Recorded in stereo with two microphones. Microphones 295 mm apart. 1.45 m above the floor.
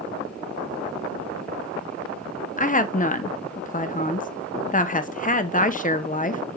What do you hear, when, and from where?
2.6 s a woman speaking: 25° left (ahead or behind), 0.9 m